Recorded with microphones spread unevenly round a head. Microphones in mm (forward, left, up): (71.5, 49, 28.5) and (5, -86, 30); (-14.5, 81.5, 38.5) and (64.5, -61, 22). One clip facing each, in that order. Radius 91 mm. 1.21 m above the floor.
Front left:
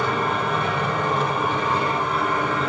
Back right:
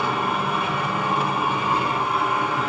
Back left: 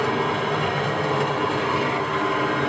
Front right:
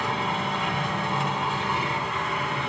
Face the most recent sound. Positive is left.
turn(degrees=160)